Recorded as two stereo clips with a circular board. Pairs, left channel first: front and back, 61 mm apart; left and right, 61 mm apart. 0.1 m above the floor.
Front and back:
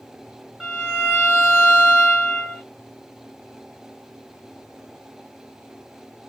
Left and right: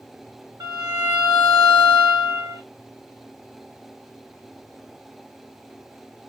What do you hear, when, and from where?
0.6 s a violin: 95° right, 1.8 m